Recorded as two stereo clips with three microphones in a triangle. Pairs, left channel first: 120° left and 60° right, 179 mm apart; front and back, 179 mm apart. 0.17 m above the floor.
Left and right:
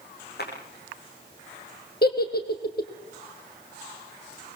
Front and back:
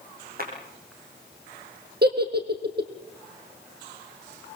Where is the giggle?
150° left, 2.5 m.